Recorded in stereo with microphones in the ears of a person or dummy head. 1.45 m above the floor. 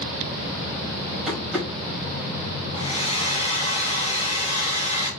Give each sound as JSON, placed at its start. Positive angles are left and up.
{"t": 1.3, "sound": "tapping", "side_deg": 0, "distance_m": 3.0}
{"t": 2.7, "sound": "a hair dryer", "side_deg": 40, "distance_m": 2.5}